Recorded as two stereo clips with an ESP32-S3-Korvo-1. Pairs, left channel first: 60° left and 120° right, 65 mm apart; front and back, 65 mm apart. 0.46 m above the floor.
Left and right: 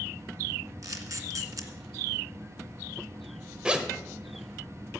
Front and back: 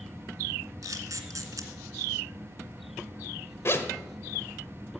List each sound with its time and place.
0.8 s a camera shutter: 150° right, 1.7 m
3.6 s a zipper: 45° right, 1.1 m